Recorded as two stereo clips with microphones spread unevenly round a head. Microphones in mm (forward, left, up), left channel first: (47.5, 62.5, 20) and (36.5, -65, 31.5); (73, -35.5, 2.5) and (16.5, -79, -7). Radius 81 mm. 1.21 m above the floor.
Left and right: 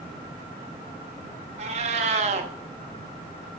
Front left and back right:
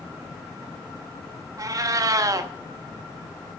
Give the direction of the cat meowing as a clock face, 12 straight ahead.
4 o'clock.